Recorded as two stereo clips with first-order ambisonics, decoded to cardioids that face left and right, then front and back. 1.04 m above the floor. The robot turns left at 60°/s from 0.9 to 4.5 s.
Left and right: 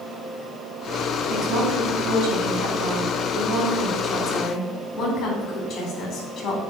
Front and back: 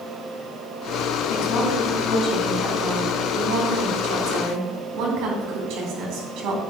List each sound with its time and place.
1.3 s a woman speaking: 15° right, 2.5 m; by 6.6 s 150° left, 2.5 m